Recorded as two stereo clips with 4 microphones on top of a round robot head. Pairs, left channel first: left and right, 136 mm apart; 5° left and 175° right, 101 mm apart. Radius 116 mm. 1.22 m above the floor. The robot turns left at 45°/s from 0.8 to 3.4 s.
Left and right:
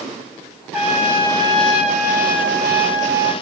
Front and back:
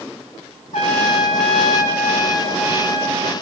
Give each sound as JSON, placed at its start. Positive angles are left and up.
{"t": 0.7, "sound": "a trumpet", "azimuth_deg": -5, "distance_m": 1.8}